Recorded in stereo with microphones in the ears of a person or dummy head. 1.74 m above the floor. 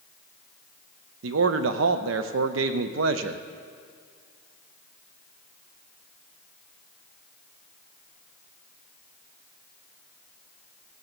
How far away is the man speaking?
About 0.7 m.